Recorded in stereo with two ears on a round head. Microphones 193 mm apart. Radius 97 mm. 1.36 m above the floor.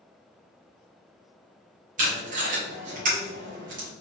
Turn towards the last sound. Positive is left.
turn(degrees=-40)  # may be behind; listen again after turning